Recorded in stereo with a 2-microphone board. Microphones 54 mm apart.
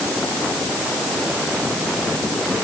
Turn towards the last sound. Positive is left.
No sound to turn to.